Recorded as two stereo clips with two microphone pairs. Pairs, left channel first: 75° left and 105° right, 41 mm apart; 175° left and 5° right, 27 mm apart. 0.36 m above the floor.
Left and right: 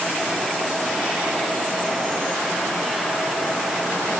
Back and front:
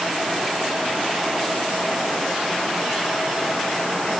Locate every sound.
Only background noise.